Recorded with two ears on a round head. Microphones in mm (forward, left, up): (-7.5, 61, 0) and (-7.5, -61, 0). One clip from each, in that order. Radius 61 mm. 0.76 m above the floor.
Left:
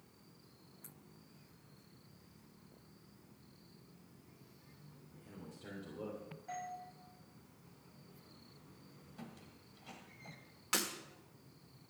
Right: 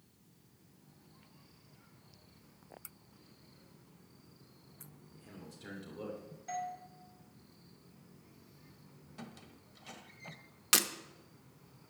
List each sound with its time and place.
5.1 s a man speaking: 45° right (ahead or behind), 2.5 m; by 6.2 s 25° right (ahead or behind), 3 m
6.5 s a doorbell: 80° right, 6 m
9.2 s a squeak: 40° right (ahead or behind), 1.4 m
10.7 s breaking glass: 70° right (ahead or behind), 1.2 m